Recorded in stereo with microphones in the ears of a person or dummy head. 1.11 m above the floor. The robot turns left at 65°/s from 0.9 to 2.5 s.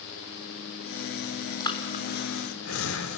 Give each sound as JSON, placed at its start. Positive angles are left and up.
{"t": 1.6, "sound": "breathing", "side_deg": 20, "distance_m": 2.5}